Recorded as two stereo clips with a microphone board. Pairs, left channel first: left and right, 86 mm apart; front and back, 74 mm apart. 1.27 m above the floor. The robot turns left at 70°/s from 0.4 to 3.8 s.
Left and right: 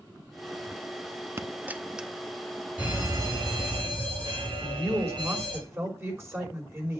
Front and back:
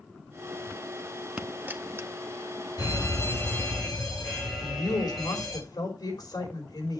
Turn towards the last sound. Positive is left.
turn(degrees=-30)